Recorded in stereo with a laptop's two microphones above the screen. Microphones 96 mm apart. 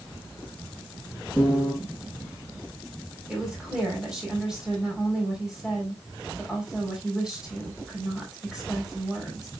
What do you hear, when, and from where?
1.4 s a piano: 20° right (ahead or behind), 2.0 m
3.3 s a woman speaking: 10° right (ahead or behind), 3.5 m